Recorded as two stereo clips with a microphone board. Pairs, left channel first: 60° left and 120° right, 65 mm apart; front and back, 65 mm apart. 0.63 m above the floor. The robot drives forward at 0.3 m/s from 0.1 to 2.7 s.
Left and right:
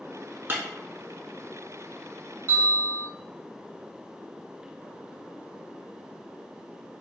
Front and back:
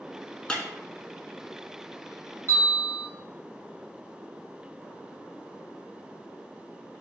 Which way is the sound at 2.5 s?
145° right.